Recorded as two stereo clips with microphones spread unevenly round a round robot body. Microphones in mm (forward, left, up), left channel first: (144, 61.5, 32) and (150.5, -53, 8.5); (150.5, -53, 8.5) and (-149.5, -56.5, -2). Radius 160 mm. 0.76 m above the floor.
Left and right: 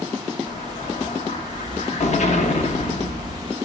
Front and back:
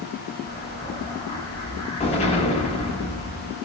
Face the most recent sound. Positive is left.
turn(degrees=75)